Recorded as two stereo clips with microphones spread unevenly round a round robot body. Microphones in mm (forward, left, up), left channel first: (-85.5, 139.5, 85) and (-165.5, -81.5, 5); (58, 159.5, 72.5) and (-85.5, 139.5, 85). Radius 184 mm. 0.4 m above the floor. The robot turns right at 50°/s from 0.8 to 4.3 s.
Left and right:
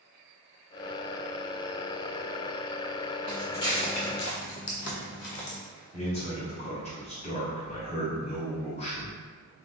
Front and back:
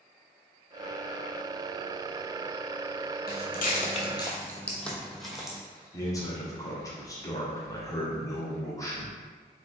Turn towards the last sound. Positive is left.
turn(degrees=-5)